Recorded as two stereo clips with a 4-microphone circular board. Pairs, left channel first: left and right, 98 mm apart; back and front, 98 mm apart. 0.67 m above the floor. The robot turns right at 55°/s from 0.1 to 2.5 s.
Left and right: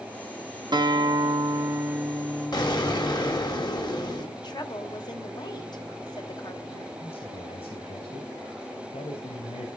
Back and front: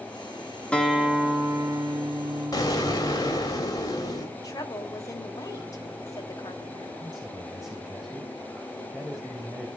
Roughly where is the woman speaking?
Behind left.